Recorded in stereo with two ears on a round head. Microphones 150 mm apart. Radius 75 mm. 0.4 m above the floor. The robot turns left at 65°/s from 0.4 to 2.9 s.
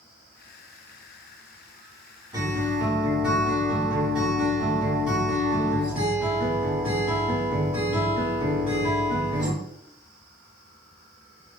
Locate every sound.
2.3 s a guitar: 130° right, 1.5 m; by 9.5 s 165° right, 1.5 m